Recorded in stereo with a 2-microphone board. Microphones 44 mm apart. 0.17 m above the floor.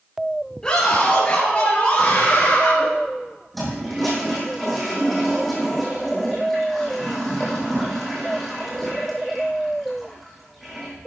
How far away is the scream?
About 4 m.